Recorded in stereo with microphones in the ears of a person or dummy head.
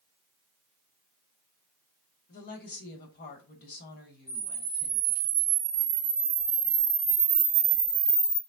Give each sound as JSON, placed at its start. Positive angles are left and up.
{"t": 2.3, "sound": "a woman speaking", "side_deg": 55, "distance_m": 1.2}
{"t": 4.3, "sound": "a camera shutter", "side_deg": -20, "distance_m": 1.2}